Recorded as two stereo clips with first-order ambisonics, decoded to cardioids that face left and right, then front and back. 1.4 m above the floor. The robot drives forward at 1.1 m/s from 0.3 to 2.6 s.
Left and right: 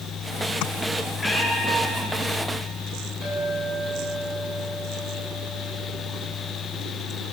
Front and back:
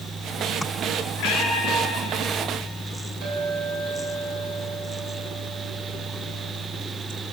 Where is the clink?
165° left, 8 m.